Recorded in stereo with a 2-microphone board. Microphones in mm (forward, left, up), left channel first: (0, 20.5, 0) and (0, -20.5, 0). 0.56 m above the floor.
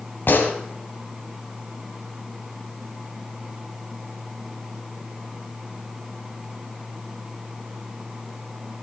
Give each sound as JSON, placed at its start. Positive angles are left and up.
{"t": 0.3, "sound": "a gunshot", "side_deg": 65, "distance_m": 2.0}